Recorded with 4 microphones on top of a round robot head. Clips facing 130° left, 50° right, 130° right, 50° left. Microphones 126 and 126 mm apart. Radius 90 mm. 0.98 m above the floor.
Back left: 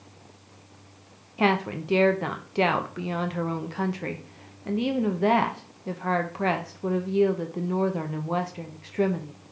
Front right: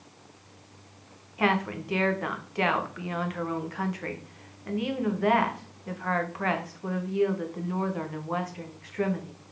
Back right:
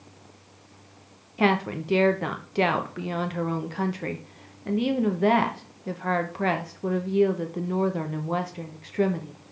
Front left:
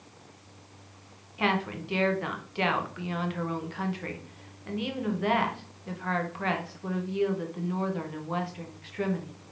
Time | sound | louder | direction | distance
1.4 | a woman speaking | back left 2 dB, back right 5 dB | 170° right | 0.8 m